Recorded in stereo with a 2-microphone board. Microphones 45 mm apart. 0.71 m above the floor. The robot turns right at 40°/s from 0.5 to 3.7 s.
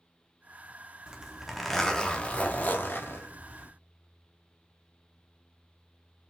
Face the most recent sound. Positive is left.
turn(degrees=85)